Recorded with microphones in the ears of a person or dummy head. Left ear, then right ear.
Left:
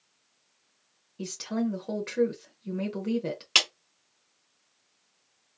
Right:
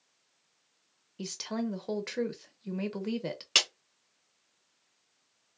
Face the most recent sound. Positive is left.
turn(degrees=0)  # may be behind; listen again after turning